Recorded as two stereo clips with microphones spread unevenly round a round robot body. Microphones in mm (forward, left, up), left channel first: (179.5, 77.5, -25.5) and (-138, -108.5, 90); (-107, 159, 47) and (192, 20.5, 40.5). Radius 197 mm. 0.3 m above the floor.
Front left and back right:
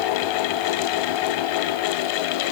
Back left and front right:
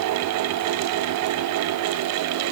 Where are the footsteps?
I don't hear footsteps.